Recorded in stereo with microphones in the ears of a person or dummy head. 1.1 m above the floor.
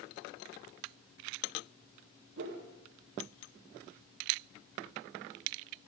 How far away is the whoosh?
About 1.8 m.